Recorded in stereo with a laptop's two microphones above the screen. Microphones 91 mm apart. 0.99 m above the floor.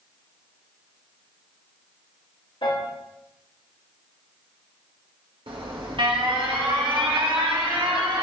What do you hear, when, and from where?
2.6 s a piano: 70° left (ahead or behind), 1.9 m
5.5 s an alarm: 70° right (ahead or behind), 1.3 m